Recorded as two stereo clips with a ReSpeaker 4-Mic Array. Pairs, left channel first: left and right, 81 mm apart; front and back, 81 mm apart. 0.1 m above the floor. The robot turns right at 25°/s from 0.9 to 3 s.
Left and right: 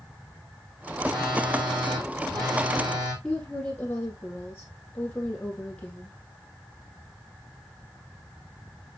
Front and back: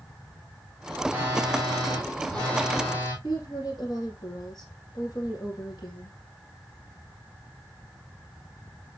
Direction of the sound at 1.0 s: 110° right.